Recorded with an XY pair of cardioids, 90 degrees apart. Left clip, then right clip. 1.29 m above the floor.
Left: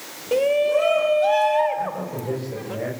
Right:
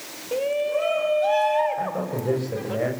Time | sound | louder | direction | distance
0.3 | a shout | left 5 dB | 50° left | 1.7 m
1.8 | a man speaking | even | 35° right | 8 m